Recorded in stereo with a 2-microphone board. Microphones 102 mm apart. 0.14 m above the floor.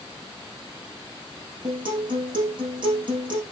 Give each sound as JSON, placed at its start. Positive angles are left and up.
{"t": 1.6, "sound": "a guitar", "side_deg": -50, "distance_m": 6.0}